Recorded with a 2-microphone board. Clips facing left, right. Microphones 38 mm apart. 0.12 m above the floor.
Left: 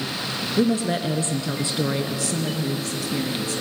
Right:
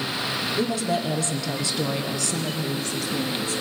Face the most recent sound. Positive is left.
turn(degrees=15)  # may be behind; listen again after turning